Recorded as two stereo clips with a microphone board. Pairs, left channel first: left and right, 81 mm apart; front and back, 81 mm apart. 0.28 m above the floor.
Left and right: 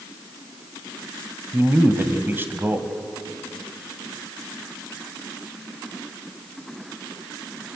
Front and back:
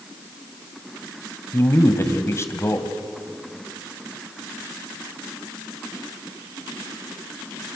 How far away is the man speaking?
About 1.9 m.